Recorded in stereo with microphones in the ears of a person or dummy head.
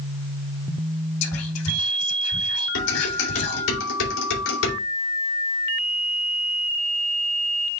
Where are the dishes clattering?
80° left, 3.5 m.